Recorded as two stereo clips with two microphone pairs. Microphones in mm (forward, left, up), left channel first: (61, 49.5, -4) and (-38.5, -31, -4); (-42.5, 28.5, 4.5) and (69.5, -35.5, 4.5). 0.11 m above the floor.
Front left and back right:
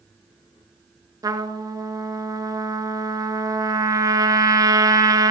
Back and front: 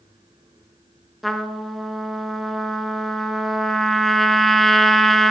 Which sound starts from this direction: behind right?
A trumpet, at 1.2 s.